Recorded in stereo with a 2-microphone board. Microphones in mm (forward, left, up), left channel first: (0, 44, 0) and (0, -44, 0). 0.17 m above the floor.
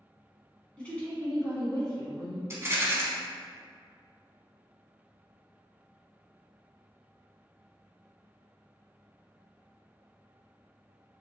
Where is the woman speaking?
10° left (ahead or behind), 1.2 m; by 2.4 s 50° left (ahead or behind), 1.6 m.